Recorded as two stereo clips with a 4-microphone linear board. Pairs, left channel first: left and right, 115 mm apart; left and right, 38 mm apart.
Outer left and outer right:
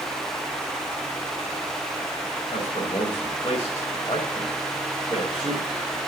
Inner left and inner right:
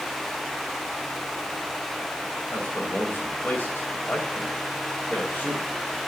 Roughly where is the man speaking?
Left.